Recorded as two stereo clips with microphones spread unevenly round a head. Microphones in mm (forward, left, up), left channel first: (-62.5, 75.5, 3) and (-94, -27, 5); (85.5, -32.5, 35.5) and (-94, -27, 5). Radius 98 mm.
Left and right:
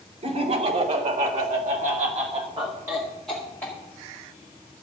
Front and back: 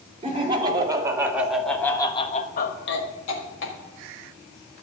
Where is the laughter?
120° right, 2.5 m; by 3.8 s straight ahead, 2 m.